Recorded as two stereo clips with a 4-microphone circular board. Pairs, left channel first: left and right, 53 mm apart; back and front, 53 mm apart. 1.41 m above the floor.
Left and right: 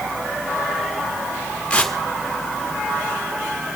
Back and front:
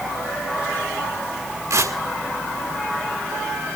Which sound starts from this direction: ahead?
Tearing paper, at 1.7 s.